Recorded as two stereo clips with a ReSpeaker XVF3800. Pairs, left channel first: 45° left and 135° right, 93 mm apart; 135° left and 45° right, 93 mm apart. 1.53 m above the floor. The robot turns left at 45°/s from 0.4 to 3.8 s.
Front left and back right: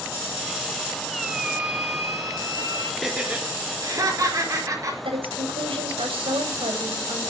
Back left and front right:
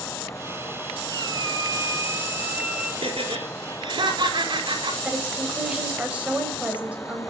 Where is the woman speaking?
120° right, 6.5 m.